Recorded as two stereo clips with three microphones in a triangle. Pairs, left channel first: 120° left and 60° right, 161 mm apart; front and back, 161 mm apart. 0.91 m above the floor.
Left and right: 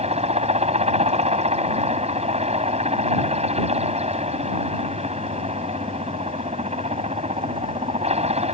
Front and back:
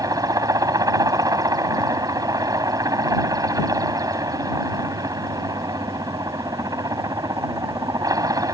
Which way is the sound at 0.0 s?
110° right.